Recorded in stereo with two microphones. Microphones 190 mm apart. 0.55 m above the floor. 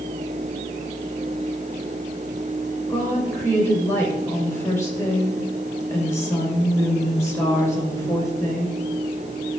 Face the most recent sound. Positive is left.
turn(degrees=15)  # may be behind; listen again after turning